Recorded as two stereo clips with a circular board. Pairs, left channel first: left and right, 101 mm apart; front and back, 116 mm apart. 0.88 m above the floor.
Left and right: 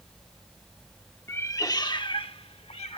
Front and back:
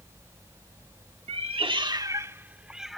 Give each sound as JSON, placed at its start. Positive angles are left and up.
{"t": 1.3, "sound": "a cat meowing", "azimuth_deg": 155}